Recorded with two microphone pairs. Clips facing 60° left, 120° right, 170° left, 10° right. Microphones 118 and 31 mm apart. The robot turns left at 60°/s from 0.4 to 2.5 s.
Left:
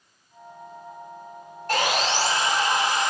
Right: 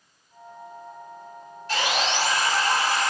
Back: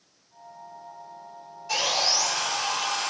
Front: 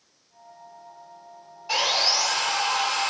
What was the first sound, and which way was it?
Sawing, 40° left.